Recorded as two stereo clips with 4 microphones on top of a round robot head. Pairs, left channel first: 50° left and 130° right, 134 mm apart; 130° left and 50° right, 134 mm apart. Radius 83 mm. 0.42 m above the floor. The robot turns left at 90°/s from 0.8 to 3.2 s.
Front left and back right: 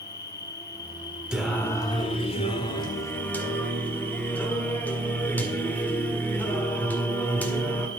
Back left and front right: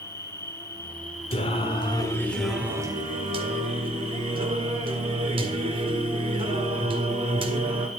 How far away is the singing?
About 1.9 m.